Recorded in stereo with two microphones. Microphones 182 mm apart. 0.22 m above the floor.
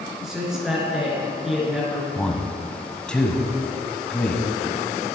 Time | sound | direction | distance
0.2 | a man speaking | 5° right (ahead or behind) | 3 m
2.1 | a man speaking | 5° left (ahead or behind) | 1.1 m